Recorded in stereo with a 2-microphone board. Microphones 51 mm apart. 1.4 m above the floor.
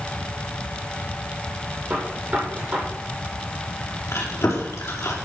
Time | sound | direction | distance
1.9 | a gunshot | 25° right (ahead or behind) | 7.5 m
4.1 | chewing | 65° left (ahead or behind) | 4.5 m